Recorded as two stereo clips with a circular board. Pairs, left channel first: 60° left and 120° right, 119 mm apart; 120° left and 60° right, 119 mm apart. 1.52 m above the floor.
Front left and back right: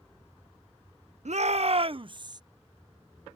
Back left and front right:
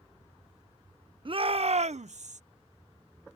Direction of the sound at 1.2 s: 105° right.